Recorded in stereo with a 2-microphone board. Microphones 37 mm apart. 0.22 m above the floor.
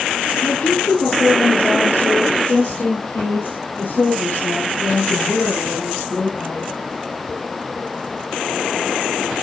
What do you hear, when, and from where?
0.3 s a woman speaking: 65° left (ahead or behind), 4 m; by 6.7 s 75° left (ahead or behind), 7 m